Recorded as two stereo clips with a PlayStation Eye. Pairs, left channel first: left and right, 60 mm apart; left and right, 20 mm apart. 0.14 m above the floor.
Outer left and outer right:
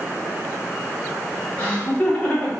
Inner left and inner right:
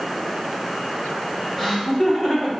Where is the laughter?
20° left (ahead or behind), 1.6 m.